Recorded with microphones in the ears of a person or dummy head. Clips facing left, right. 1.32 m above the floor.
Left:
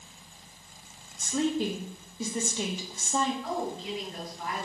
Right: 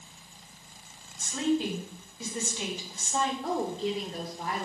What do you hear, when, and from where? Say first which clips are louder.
1.2 s a woman speaking: even; 80° left, 2 m
3.4 s a woman speaking: right 3 dB; 35° right (ahead or behind), 1.7 m